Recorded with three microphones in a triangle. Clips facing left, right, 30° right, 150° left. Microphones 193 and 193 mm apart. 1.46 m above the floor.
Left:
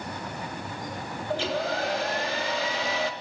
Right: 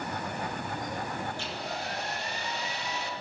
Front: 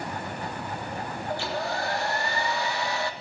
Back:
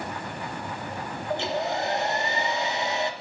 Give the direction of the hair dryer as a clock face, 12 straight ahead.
9 o'clock.